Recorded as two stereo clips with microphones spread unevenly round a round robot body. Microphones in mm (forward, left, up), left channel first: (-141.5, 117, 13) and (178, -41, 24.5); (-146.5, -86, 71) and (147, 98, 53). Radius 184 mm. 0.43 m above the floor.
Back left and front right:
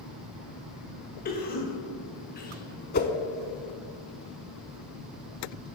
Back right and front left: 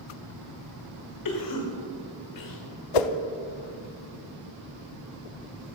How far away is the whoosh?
About 0.5 m.